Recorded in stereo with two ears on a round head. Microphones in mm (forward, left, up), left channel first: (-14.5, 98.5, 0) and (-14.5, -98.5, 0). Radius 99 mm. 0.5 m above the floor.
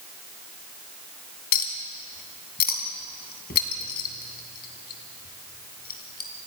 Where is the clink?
40° left (ahead or behind), 2.5 m.